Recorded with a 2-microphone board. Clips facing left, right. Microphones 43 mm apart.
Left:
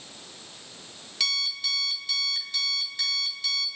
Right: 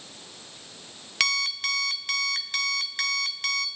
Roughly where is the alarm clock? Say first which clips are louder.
Right 4 dB; right.